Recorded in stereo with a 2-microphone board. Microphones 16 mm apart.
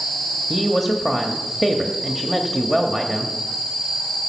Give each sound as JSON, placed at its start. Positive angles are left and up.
{"t": 0.5, "sound": "a woman speaking", "side_deg": -15, "distance_m": 1.1}